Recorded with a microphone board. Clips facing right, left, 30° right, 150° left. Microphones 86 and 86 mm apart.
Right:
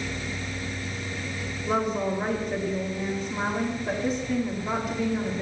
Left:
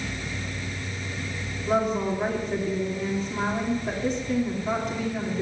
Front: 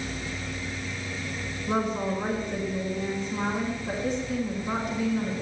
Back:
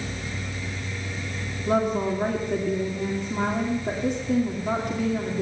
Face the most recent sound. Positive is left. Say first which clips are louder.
# left 2 dB, back 4 dB
turn(degrees=180)